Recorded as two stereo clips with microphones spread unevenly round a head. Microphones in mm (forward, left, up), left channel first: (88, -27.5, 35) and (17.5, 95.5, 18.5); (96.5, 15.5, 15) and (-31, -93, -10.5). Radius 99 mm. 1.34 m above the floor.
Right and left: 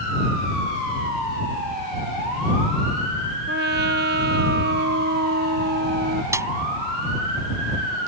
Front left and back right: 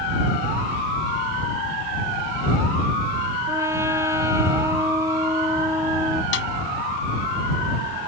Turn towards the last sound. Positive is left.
turn(degrees=50)